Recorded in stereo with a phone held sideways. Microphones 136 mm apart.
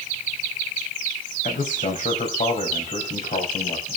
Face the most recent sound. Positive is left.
turn(degrees=60)  # may be behind; listen again after turning